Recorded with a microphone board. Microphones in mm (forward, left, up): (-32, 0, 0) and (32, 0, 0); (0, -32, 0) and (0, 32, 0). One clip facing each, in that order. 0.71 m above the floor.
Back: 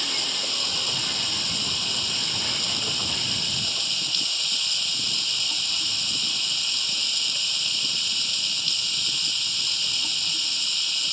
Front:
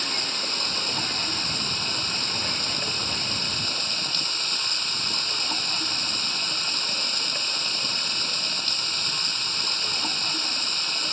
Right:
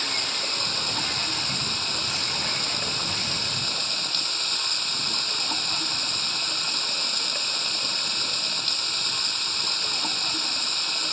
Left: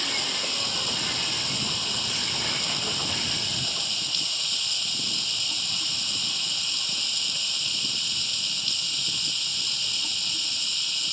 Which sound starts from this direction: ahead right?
Running water, at 0.0 s.